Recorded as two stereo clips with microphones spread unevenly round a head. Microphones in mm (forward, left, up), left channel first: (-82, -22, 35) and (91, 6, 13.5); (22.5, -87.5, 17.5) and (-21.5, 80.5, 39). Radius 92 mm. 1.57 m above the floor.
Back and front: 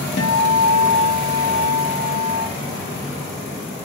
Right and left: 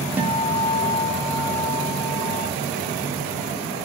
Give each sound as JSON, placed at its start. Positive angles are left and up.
{"t": 0.2, "sound": "a guitar", "azimuth_deg": 180, "distance_m": 1.3}